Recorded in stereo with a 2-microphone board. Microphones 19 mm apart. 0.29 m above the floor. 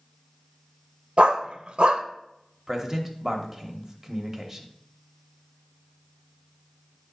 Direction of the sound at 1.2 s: 70° right (ahead or behind).